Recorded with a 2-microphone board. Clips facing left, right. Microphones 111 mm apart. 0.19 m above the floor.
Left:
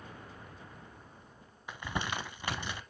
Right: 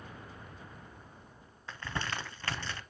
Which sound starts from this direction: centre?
Crumpling, at 1.7 s.